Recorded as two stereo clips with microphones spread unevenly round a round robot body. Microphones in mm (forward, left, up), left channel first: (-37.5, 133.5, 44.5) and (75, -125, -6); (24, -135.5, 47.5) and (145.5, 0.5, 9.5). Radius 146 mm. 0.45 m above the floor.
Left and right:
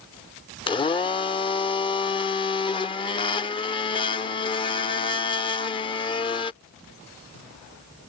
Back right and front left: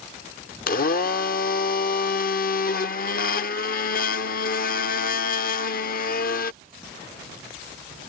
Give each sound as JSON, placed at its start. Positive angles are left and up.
{"t": 0.7, "sound": "a blender", "azimuth_deg": -170}